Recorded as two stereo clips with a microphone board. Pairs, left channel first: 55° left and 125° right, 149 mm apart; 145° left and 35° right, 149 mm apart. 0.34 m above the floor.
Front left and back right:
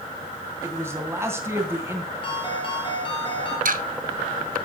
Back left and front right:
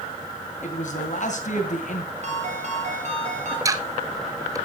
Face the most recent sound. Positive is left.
turn(degrees=-100)